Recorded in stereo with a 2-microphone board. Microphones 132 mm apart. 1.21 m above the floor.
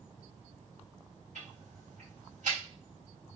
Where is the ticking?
75° right (ahead or behind), 2.5 m.